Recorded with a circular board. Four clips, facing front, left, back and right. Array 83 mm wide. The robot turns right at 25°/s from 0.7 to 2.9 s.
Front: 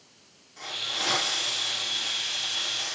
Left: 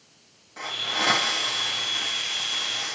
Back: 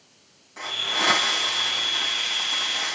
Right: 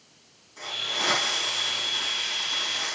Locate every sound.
0.6 s a hiss: 130° left, 5.5 m; by 3.0 s 175° right, 5.5 m